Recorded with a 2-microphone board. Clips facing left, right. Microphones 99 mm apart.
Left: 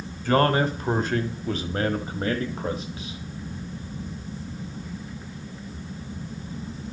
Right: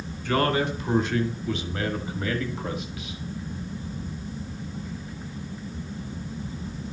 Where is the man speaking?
40° left (ahead or behind), 1.9 m; by 3.2 s 30° left (ahead or behind), 1.6 m.